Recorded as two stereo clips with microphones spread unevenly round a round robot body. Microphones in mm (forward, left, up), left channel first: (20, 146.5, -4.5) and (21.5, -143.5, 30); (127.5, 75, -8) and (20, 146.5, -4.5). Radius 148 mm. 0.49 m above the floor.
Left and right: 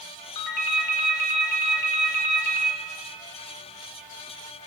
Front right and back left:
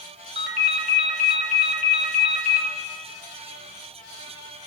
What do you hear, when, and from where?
0.3 s a ringtone: 115° left, 1.1 m